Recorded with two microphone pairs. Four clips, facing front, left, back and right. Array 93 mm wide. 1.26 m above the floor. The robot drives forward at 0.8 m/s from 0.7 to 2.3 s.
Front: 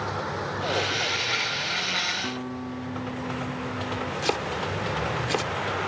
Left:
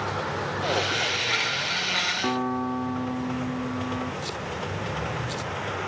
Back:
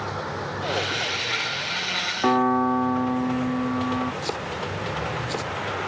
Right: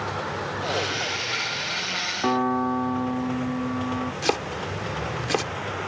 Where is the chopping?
70° right.